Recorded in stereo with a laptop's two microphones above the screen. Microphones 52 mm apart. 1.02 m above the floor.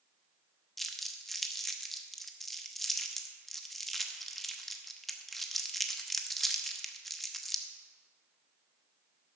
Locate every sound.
0.8 s crumpling: 5° left (ahead or behind), 1.1 m